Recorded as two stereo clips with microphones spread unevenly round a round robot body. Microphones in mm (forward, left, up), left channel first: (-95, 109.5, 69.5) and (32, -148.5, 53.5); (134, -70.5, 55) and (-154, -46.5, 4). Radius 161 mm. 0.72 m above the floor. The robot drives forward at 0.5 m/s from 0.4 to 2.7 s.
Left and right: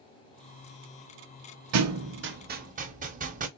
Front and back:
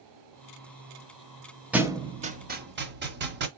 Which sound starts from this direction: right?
A thud, at 1.7 s.